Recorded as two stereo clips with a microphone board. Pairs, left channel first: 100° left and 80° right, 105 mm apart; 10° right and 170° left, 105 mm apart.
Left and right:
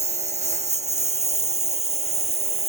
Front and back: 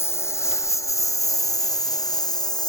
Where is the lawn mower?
80° right; by 2.7 s 65° right.